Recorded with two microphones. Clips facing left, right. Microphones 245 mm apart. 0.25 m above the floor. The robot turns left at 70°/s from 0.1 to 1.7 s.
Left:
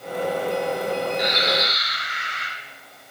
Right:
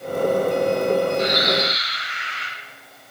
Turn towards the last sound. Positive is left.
turn(degrees=130)